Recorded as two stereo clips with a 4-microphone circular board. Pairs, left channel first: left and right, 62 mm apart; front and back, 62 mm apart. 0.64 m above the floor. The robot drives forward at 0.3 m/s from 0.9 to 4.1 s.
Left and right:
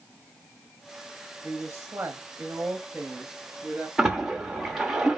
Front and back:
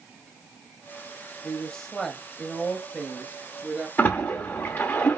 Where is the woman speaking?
45° right, 1.0 m; by 3.9 s 135° right, 1.0 m.